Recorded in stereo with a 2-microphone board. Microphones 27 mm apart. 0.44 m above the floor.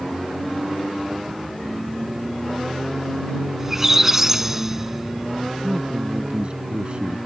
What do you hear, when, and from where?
3.6 s a squeak: 15° right (ahead or behind)
5.6 s a man speaking: 40° right (ahead or behind)